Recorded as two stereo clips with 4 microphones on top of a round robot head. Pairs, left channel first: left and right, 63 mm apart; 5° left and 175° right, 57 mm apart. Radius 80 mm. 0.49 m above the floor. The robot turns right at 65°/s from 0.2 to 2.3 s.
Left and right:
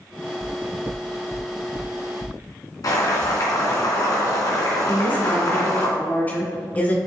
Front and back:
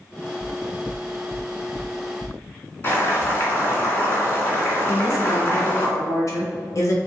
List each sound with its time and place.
0.4 s knocking: 130° left, 1.5 m; by 2.4 s 105° right, 1.5 m
2.8 s boiling: 55° left, 2 m
4.9 s a woman speaking: 25° left, 2.5 m